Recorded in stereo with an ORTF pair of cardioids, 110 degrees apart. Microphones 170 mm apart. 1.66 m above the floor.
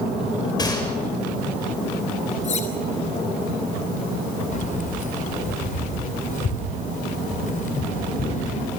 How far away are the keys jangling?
About 5.5 m.